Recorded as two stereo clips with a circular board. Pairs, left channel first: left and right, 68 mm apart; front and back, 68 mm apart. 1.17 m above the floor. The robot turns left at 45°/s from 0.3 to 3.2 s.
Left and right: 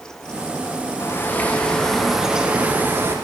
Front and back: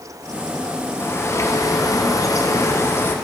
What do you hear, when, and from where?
1.0 s a bird: 45° left, 1.1 m; by 3.1 s 50° right, 1.1 m